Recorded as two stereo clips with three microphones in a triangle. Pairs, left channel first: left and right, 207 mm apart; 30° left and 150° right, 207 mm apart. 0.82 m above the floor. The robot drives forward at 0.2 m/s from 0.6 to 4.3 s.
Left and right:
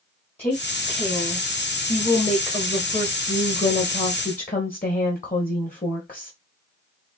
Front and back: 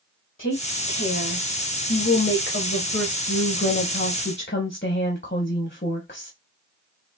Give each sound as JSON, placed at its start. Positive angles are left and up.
{"t": 0.4, "sound": "a woman speaking", "azimuth_deg": 30, "distance_m": 1.6}